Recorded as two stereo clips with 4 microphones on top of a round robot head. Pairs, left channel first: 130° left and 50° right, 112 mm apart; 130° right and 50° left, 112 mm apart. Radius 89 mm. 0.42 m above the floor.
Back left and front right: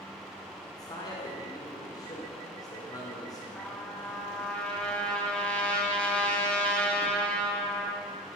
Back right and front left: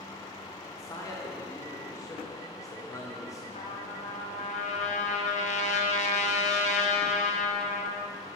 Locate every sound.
0.8 s a man speaking: 175° left, 1.4 m
3.5 s a trumpet: 150° right, 1.0 m